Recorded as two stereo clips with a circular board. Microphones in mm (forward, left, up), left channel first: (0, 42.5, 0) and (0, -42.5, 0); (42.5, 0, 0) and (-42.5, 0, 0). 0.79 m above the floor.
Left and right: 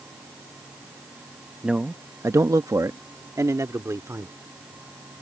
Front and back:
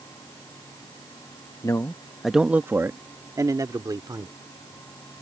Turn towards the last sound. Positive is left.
turn(degrees=-145)